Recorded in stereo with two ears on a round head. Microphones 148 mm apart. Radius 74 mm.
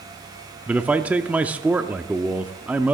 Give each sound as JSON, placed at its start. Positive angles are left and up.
{"t": 0.7, "sound": "a man speaking", "side_deg": -10, "distance_m": 0.7}